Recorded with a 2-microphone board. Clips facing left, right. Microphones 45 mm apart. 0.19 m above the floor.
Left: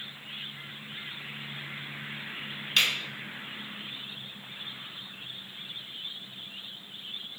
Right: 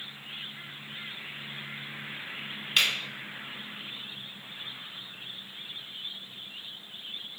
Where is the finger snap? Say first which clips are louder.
Even; 5° right (ahead or behind), 1.4 m.